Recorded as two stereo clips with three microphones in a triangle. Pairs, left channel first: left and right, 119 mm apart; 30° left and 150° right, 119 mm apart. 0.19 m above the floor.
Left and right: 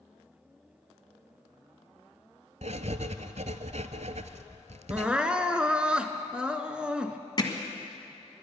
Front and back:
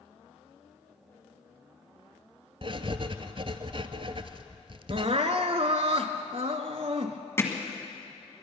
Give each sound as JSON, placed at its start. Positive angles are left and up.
{"t": 2.6, "sound": "writing", "azimuth_deg": -105, "distance_m": 0.6}
{"t": 4.9, "sound": "crying", "azimuth_deg": -170, "distance_m": 0.8}
{"t": 7.4, "sound": "hammering", "azimuth_deg": 85, "distance_m": 1.5}